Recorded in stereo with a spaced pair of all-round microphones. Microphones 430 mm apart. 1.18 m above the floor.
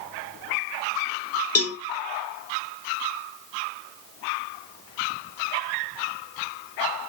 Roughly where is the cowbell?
Left.